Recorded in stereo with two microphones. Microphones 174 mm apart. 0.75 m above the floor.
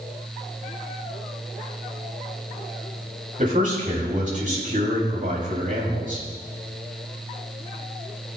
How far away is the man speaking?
About 4 m.